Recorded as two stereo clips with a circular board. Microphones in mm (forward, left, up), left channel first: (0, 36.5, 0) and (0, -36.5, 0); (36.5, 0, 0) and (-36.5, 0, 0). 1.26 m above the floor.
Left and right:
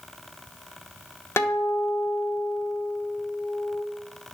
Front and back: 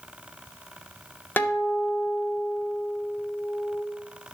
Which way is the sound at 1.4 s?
50° left.